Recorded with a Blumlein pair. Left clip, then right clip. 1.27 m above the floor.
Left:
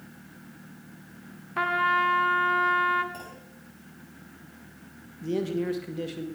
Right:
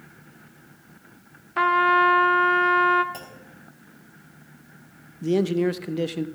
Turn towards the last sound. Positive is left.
turn(degrees=-25)